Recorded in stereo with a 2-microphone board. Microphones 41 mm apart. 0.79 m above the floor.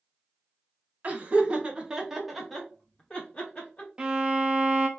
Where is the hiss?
No hiss in this recording.